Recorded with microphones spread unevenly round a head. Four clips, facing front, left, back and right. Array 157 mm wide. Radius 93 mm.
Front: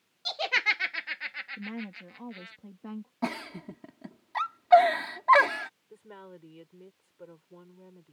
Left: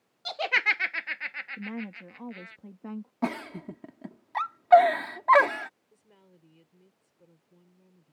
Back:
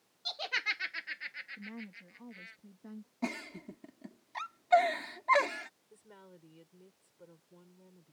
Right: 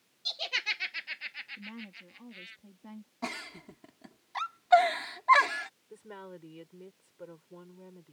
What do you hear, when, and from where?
0.2 s laughter: 45° left; by 2.6 s 70° left
1.6 s a woman speaking: 60° left
3.2 s a giggle: 75° left
5.9 s a woman speaking: 60° right